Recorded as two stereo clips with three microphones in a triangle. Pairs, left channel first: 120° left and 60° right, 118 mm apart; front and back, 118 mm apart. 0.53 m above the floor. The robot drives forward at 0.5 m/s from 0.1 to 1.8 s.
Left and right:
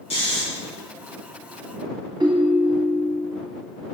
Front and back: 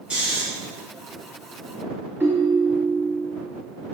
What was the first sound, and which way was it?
Snoring, 100° left.